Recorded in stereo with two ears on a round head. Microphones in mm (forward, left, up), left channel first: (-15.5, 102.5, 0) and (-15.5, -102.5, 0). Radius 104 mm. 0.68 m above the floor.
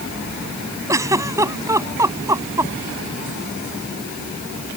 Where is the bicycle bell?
I don't hear a bicycle bell.